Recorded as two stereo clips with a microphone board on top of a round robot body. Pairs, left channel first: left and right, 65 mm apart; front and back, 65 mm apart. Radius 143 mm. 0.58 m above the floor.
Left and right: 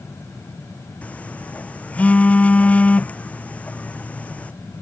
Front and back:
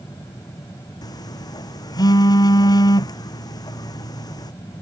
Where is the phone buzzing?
20° left.